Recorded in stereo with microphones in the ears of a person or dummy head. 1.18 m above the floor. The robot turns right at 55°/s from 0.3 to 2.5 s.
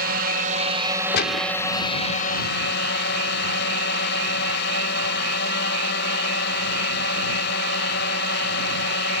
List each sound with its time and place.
0.0 s a drone: 55° right; by 9.2 s 65° left
1.1 s a gunshot: 60° left (ahead or behind); by 1.6 s 35° left (ahead or behind)